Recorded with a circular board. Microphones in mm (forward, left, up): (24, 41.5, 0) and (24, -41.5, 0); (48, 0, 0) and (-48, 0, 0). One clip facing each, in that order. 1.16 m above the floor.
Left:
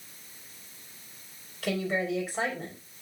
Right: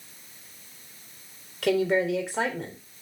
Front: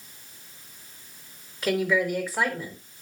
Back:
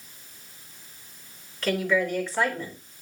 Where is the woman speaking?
80° right, 3.5 m.